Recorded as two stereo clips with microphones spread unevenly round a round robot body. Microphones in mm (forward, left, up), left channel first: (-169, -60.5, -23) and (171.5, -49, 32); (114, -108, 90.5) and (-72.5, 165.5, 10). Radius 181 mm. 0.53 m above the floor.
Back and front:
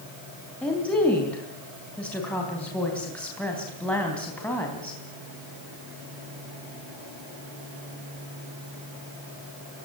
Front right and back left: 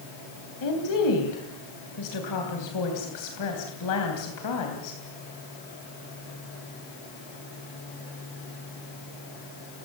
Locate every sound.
0.6 s a woman speaking: 95° right, 3.5 m